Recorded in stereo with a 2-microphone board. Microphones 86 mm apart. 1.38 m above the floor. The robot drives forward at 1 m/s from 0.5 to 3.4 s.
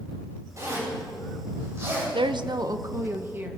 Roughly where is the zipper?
Right.